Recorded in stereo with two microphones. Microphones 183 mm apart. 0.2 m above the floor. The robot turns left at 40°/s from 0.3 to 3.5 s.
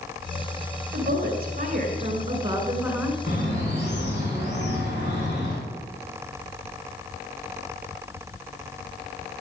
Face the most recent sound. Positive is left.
turn(degrees=75)  # may be behind; listen again after turning